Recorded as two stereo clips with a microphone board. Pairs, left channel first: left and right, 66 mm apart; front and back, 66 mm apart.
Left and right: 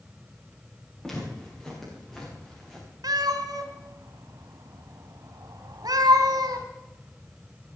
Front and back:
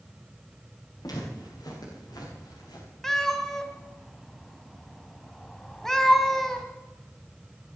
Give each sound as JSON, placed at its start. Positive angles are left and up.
{"t": 1.0, "sound": "footsteps", "azimuth_deg": 5, "distance_m": 8.5}
{"t": 3.0, "sound": "a cat meowing", "azimuth_deg": -80, "distance_m": 1.5}